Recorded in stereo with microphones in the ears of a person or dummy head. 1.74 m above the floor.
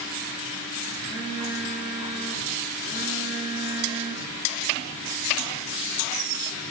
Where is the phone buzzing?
70° right (ahead or behind), 5 m.